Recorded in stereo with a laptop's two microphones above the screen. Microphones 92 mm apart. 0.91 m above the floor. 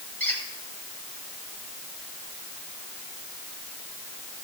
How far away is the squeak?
About 2 m.